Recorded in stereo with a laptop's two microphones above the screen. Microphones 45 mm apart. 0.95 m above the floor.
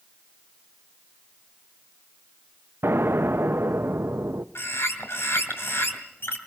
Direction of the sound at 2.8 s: 65° right (ahead or behind).